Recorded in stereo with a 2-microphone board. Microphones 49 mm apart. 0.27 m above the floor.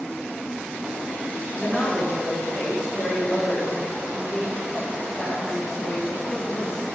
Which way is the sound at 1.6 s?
20° right (ahead or behind).